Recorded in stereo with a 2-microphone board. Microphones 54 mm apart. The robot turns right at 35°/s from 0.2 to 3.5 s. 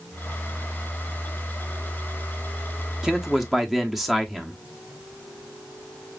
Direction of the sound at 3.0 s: 10° right (ahead or behind).